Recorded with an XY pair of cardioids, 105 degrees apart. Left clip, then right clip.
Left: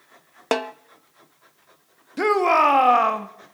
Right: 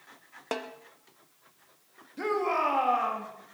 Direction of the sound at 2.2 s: 70° left.